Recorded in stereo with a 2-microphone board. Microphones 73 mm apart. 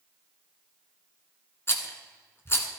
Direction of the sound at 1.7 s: 40° left (ahead or behind).